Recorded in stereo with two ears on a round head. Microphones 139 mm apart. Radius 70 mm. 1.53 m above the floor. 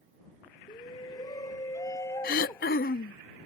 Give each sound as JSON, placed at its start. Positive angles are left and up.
{"t": 0.7, "sound": "a shout", "side_deg": 30}
{"t": 2.2, "sound": "throat clearing", "side_deg": 60}